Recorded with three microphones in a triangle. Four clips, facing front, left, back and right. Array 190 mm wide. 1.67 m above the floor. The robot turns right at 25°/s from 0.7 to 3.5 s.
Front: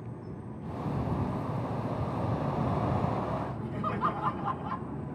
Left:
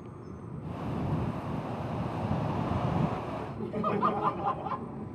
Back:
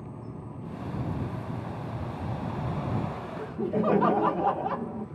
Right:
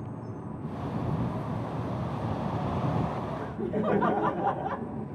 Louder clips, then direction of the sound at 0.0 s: Right 5 dB, back 1 dB; 100° right.